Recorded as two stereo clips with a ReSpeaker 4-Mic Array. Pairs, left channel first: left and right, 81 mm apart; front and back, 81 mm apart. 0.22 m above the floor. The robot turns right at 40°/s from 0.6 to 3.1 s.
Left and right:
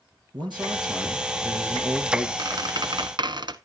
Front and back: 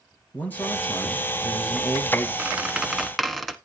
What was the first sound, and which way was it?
A man speaking, 65° right.